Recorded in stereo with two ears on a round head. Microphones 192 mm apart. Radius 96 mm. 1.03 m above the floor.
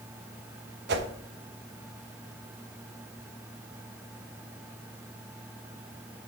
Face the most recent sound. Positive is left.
turn(degrees=-55)  # may be behind; listen again after turning